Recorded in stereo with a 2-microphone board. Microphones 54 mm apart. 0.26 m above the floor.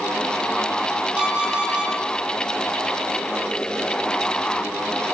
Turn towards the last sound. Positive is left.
turn(degrees=-20)  # may be behind; listen again after turning